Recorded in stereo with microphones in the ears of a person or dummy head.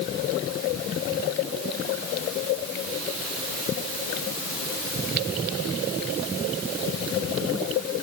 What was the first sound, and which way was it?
Only background noise.